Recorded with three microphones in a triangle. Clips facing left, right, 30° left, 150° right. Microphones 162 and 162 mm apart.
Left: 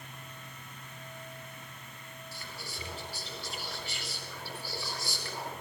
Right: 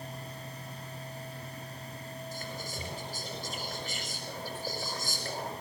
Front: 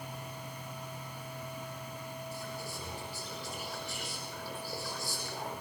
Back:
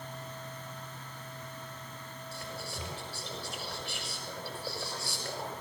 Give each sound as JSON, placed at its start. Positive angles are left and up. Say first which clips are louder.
{"t": 2.3, "sound": "whispering", "louder": "right 4 dB, front 1 dB", "azimuth_deg": -135, "distance_m": 6.5}